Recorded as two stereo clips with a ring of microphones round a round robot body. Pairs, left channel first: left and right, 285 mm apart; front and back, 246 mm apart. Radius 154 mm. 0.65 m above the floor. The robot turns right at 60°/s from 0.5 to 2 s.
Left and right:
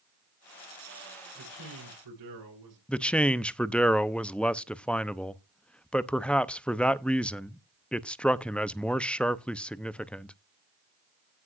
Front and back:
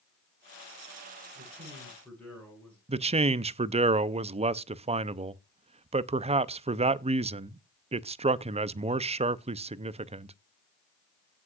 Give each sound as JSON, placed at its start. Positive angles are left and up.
{"t": 1.4, "sound": "a man speaking", "azimuth_deg": -125, "distance_m": 8.5}
{"t": 2.9, "sound": "a man speaking", "azimuth_deg": 170, "distance_m": 0.6}